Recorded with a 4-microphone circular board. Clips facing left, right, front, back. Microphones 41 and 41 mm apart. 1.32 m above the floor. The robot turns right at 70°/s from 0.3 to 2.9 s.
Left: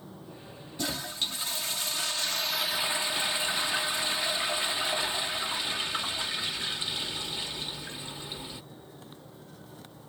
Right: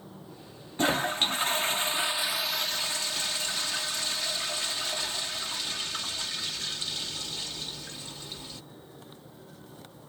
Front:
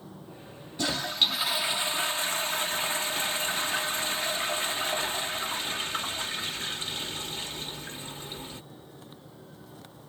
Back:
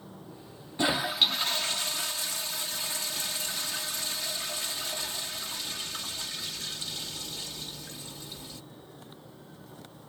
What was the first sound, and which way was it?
A toilet flushing, 120° right.